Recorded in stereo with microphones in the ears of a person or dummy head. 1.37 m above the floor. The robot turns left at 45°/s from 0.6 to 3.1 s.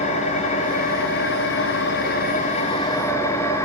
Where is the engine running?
130° left, 0.9 m; by 3.7 s 20° left, 0.9 m.